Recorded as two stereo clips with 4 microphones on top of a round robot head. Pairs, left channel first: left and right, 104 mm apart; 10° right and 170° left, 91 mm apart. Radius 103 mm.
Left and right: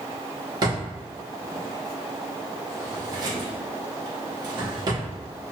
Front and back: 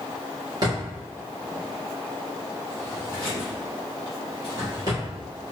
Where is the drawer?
140° right, 1.1 m.